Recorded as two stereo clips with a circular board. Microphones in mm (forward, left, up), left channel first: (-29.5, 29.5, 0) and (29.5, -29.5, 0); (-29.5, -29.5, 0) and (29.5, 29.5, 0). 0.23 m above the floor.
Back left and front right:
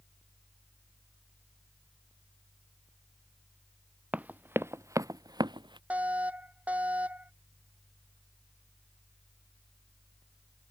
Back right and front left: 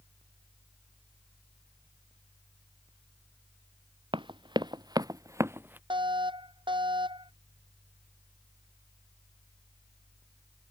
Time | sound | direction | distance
4.1 | running footsteps | 30° left | ?
5.9 | a fire alarm | 30° left | ?